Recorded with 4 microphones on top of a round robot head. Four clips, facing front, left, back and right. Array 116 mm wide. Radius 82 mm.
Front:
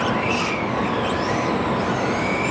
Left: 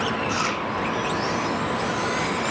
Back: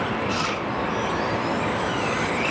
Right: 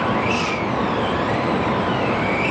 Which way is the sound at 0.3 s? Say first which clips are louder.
Right 4 dB, front 3 dB; 125° left.